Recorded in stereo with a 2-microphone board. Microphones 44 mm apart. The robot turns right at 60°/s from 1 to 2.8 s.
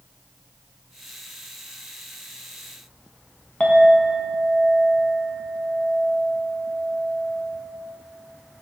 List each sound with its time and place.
3.6 s a clink: 30° left (ahead or behind), 0.9 m